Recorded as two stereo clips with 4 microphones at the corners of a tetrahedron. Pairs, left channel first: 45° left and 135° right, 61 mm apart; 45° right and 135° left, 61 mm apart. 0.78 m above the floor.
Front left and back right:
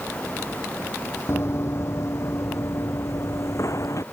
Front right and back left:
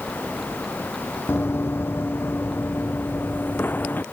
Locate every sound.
1.3 s running footsteps: straight ahead; by 4.0 s 15° left